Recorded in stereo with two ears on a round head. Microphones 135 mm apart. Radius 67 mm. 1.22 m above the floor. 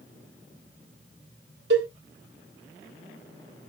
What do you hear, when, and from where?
1.7 s a cowbell: 85° right, 1.1 m